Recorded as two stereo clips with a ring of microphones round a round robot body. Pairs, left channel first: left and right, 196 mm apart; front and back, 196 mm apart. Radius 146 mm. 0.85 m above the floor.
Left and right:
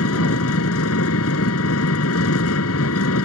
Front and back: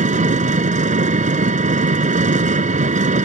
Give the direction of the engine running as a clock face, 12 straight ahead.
8 o'clock.